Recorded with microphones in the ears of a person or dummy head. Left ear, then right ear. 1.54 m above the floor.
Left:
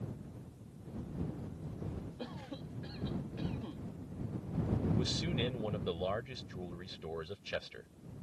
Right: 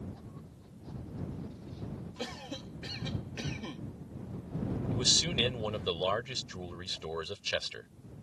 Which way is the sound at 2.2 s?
80° right.